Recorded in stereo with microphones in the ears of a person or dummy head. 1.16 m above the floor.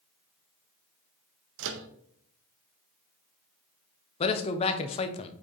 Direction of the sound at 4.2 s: 30° left (ahead or behind).